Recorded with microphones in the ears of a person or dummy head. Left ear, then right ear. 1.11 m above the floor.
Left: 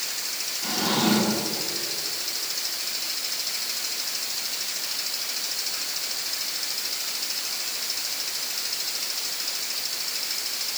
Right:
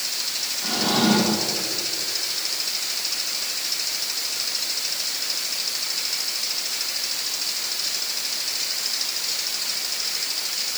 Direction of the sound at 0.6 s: 10° left (ahead or behind).